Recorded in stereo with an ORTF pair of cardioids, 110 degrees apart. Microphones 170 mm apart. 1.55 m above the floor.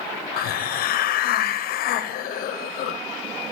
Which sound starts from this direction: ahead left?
A hiss, at 0.4 s.